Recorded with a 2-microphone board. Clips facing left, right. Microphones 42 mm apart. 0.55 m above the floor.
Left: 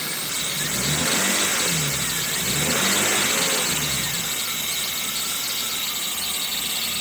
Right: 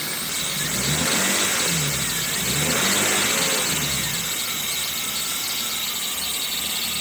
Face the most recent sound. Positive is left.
No sound to turn to.